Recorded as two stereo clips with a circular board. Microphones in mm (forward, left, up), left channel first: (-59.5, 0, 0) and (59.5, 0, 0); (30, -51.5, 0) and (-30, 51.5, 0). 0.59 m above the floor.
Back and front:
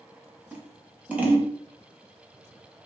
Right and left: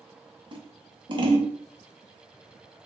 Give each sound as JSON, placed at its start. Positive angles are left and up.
{"t": 0.5, "sound": "scissors", "azimuth_deg": 75, "distance_m": 0.5}